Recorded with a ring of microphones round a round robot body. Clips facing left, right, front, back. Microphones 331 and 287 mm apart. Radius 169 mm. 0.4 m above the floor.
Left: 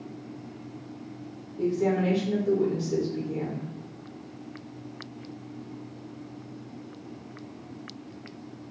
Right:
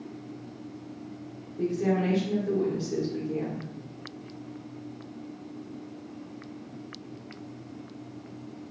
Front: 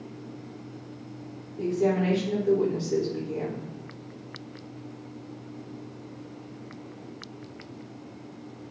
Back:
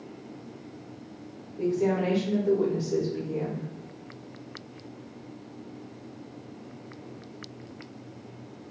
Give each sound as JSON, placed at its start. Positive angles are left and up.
{"t": 1.6, "sound": "a woman speaking", "azimuth_deg": -10, "distance_m": 1.3}